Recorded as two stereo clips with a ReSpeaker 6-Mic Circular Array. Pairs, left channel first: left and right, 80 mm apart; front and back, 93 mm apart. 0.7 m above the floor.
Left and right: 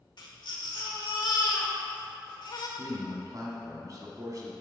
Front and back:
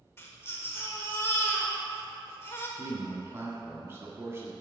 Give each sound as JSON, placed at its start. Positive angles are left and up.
{"t": 0.2, "sound": "a baby crying", "azimuth_deg": 65, "distance_m": 1.0}
{"t": 2.8, "sound": "a man speaking", "azimuth_deg": -120, "distance_m": 1.4}